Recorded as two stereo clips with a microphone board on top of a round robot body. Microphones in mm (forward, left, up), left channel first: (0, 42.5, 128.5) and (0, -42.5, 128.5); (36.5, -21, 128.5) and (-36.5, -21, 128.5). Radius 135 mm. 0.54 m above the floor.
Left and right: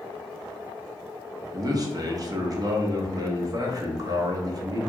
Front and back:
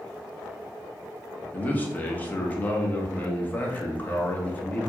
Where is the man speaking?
65° right, 0.9 m.